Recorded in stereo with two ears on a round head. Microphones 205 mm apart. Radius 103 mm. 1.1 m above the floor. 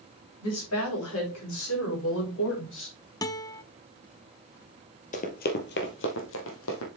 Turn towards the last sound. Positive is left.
turn(degrees=65)  # may be behind; listen again after turning